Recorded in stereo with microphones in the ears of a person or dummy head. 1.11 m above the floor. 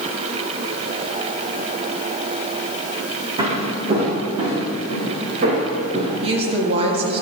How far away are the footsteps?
About 2.5 m.